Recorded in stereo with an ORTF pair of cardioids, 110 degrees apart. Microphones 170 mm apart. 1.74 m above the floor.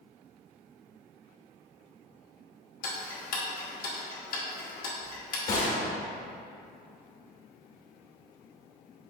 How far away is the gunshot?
About 1.1 m.